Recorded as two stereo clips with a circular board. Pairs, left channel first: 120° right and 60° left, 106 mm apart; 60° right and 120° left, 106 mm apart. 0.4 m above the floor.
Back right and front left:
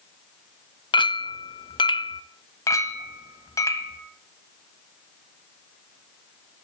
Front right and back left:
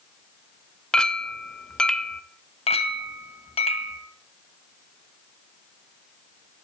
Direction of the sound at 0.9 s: 140° right.